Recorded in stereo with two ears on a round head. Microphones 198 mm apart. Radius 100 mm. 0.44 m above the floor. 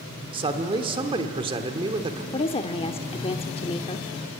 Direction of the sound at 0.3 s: 25° right (ahead or behind).